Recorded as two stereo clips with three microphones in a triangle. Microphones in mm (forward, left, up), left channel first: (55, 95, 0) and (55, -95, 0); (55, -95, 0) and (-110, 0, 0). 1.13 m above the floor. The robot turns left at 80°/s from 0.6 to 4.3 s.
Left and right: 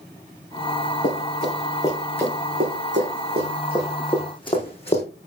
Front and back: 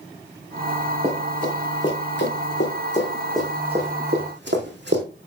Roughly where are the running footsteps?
Left.